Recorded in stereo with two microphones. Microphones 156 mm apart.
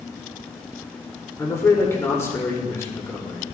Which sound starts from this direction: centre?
A man speaking, at 1.4 s.